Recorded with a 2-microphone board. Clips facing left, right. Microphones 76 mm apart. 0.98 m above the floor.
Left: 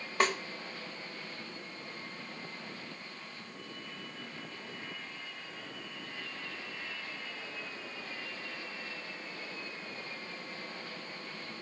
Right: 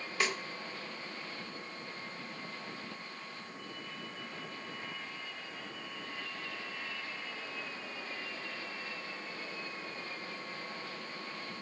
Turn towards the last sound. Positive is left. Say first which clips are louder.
# left 5 dB
turn(degrees=45)  # may be behind; listen again after turning